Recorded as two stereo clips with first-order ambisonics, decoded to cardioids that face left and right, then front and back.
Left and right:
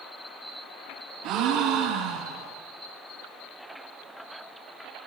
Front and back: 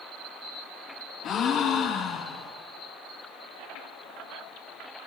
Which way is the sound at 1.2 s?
60° right.